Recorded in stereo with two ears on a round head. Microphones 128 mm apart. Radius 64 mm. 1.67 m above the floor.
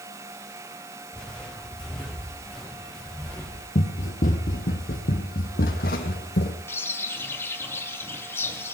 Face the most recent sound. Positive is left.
turn(degrees=20)  # may be behind; listen again after turning